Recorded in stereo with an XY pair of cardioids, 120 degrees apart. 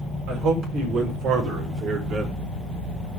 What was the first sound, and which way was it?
A man speaking, 70° right.